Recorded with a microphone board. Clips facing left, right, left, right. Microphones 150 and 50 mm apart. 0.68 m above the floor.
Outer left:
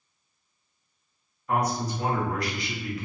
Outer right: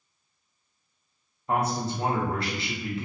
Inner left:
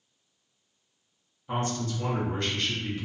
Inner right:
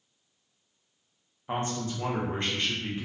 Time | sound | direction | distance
1.5 | a man speaking | 30° right (ahead or behind) | 0.7 m